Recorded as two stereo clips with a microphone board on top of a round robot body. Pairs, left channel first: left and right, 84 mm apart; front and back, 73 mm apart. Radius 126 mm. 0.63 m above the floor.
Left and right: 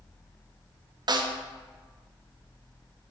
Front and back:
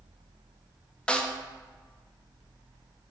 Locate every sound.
1.1 s a snare drum: 75° right, 0.5 m